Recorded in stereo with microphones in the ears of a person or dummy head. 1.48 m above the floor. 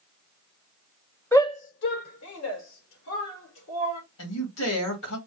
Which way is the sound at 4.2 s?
85° left.